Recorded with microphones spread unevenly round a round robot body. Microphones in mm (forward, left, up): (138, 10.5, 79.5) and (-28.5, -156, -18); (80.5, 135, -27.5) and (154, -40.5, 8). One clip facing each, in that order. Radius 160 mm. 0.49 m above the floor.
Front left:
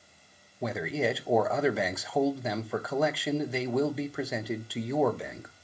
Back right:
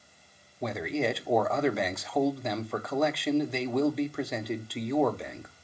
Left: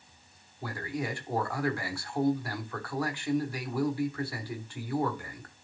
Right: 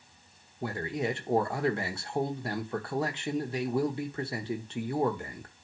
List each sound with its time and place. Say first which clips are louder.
0.6 s a man speaking: even, right 3 dB; 130° right, 0.7 m